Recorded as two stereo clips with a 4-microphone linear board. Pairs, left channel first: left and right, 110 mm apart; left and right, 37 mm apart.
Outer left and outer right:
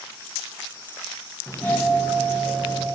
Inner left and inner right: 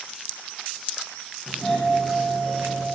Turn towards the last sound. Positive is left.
turn(degrees=15)  # may be behind; listen again after turning